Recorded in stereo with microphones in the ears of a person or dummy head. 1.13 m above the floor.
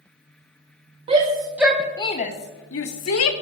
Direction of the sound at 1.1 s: 30° right (ahead or behind).